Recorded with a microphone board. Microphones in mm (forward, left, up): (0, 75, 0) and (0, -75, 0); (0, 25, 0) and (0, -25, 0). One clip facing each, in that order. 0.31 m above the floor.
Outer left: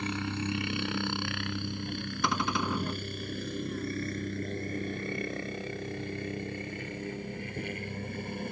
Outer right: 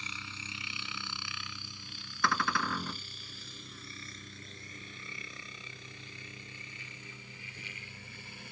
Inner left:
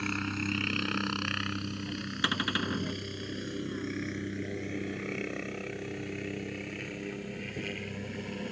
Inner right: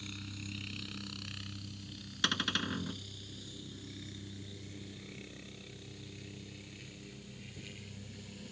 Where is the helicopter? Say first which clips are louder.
Outer left 16 dB, inner left 14 dB; 60° left (ahead or behind); by 8.5 s 55° left (ahead or behind).